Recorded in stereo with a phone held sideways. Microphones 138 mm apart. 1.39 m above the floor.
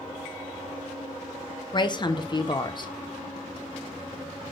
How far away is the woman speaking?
About 0.8 m.